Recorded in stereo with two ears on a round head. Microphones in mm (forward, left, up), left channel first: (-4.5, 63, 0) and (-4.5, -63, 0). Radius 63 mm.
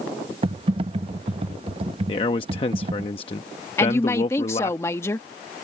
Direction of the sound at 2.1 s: 40° left (ahead or behind).